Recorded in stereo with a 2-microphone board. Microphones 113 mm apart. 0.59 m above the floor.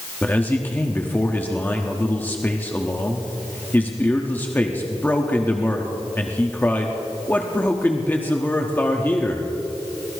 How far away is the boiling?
I don't hear boiling.